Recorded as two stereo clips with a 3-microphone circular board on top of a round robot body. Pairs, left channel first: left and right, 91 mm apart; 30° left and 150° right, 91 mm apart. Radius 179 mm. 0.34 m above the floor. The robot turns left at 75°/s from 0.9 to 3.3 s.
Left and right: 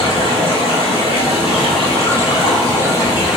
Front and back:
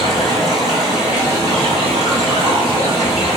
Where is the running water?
60° right, 1.7 m; by 3.4 s 120° left, 1.7 m.